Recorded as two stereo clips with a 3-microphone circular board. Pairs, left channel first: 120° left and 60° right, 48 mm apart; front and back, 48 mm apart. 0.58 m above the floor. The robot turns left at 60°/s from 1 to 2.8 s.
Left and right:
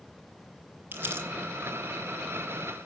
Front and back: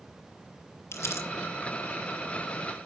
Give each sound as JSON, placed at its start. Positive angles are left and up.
{"t": 0.9, "sound": "crumpling", "azimuth_deg": -10, "distance_m": 3.0}